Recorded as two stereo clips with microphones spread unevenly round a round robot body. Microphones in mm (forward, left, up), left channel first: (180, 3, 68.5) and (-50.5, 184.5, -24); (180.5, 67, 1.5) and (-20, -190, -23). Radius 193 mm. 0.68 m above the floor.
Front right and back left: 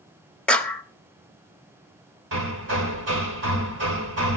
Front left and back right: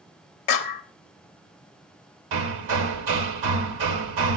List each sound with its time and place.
0.5 s a clap: 60° left, 1.2 m
2.3 s hammering: 160° right, 1.3 m